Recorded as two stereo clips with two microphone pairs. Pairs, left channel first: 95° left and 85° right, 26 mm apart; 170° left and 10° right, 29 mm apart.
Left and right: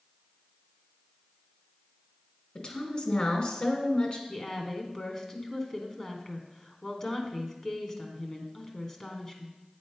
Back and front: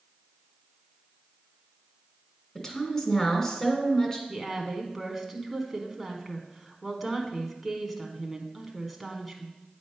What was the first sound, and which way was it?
A woman speaking, 115° left.